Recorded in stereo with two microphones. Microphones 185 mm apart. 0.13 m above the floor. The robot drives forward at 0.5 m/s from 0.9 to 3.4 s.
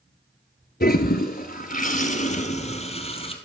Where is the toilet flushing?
55° left (ahead or behind), 1.1 m; by 3.4 s 30° left (ahead or behind), 1.8 m.